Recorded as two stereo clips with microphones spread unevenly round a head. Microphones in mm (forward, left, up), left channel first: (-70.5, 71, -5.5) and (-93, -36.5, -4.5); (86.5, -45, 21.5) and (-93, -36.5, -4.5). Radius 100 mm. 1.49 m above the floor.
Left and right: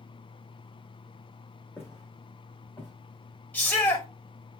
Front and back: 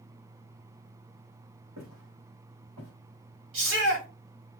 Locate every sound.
1.8 s footsteps: 145° left, 5 m
3.5 s a shout: 150° left, 5.5 m